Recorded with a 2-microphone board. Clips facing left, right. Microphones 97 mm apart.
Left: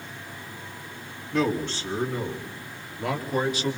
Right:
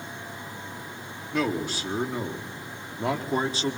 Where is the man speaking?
5° right (ahead or behind), 3.5 m; by 3.8 s 35° right (ahead or behind), 4 m.